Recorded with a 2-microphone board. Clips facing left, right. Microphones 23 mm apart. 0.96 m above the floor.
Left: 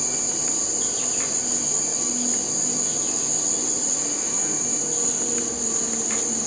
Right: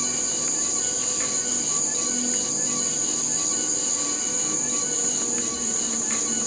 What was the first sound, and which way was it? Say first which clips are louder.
An insect: even; 65° left (ahead or behind).